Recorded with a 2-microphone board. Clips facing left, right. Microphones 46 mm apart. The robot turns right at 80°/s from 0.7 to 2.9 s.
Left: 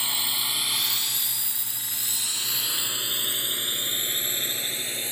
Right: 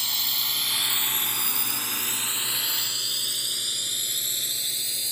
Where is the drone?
20° left (ahead or behind); by 5.1 s 35° left (ahead or behind).